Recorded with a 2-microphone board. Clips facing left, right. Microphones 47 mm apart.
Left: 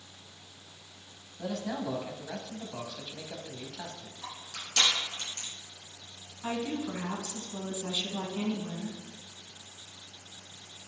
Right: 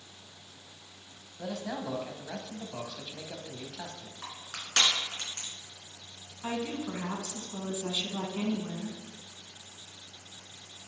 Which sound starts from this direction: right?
Crushing, at 4.2 s.